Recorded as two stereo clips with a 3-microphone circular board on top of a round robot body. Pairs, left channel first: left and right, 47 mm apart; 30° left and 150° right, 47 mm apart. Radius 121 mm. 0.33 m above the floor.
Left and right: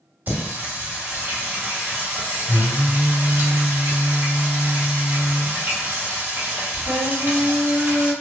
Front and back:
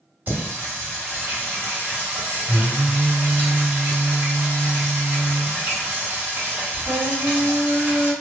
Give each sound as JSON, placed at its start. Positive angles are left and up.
{"t": 0.3, "sound": "singing", "azimuth_deg": -120, "distance_m": 1.7}